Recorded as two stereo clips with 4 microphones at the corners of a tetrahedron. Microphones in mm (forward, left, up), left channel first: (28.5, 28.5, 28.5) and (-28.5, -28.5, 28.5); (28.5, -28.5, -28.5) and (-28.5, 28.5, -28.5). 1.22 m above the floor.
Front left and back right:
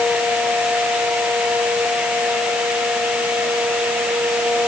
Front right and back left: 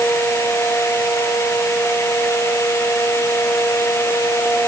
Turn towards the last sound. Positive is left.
No sound to turn to.